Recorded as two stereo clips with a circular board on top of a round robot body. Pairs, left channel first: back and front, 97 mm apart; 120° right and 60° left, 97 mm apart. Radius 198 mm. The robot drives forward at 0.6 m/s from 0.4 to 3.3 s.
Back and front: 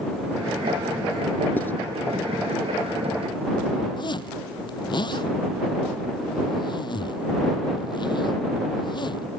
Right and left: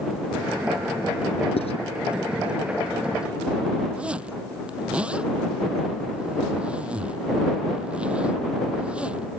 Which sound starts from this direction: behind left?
A zipper, at 4.0 s.